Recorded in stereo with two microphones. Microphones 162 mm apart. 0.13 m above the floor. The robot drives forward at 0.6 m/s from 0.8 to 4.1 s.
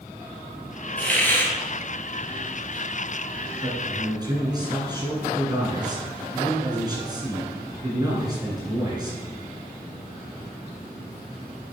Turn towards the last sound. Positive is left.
turn(degrees=-25)  # may be behind; listen again after turning